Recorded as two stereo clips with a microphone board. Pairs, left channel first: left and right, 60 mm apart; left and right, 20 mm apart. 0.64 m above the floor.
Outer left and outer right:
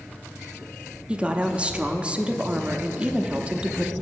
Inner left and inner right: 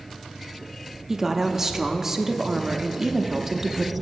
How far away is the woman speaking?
About 0.6 m.